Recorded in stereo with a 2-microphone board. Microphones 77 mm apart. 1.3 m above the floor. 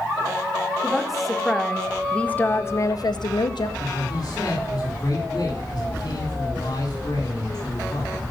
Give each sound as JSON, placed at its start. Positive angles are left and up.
{"t": 0.8, "sound": "a woman speaking", "side_deg": 0, "distance_m": 2.0}
{"t": 3.8, "sound": "a man speaking", "side_deg": 55, "distance_m": 4.5}